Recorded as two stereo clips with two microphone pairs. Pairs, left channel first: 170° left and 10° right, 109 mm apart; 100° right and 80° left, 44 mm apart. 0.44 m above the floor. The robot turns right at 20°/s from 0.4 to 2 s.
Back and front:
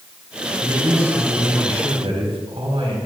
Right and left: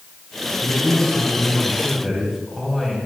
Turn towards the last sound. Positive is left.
turn(degrees=-5)